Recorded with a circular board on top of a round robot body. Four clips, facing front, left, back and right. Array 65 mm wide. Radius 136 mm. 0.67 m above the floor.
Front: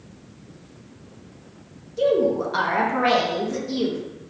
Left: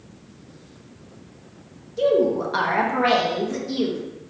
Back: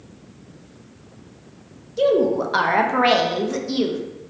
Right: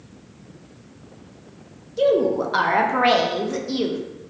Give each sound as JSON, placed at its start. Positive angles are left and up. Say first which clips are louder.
{"t": 2.0, "sound": "a woman speaking", "louder": "right 1 dB, back 2 dB", "azimuth_deg": -155, "distance_m": 0.7}